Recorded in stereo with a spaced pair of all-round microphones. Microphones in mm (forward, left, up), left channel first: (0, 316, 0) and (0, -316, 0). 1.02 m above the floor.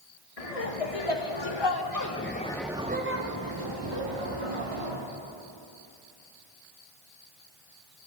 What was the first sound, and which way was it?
Laughter, 65° left (ahead or behind).